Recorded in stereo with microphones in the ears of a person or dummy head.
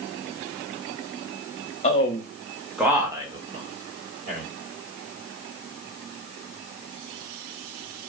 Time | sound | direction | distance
1.8 | a man speaking | 30° left (ahead or behind) | 0.8 m